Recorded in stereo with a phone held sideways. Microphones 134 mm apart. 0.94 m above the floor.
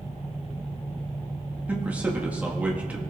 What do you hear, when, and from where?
1.7 s a man speaking: 10° right (ahead or behind), 1.4 m